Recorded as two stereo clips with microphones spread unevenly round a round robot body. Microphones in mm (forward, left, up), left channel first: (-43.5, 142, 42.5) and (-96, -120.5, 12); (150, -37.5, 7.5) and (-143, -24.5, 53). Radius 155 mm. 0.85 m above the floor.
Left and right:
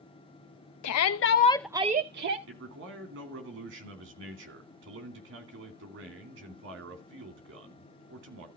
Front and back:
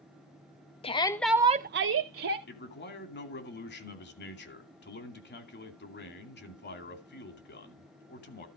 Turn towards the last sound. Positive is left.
turn(degrees=-55)